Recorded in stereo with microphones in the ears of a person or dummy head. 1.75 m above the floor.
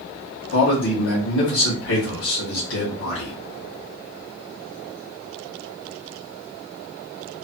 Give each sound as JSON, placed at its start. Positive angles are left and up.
{"t": 0.5, "sound": "a man speaking", "side_deg": 80, "distance_m": 1.6}